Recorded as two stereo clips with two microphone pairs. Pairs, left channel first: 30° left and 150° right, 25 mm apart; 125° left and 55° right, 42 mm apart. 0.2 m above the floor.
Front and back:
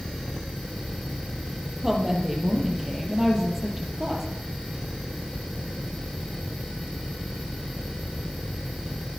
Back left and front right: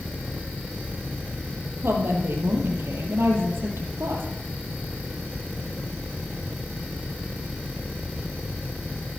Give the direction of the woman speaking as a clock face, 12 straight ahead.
2 o'clock.